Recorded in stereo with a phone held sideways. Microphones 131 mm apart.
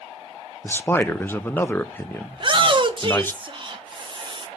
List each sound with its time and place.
0.6 s a man speaking: 15° left (ahead or behind), 0.5 m
2.3 s a shout: 40° right (ahead or behind), 1.1 m